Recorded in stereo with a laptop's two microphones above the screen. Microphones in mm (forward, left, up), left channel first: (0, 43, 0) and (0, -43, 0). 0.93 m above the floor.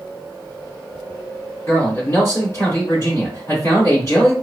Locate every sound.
1.7 s a man speaking: 30° left (ahead or behind), 2.5 m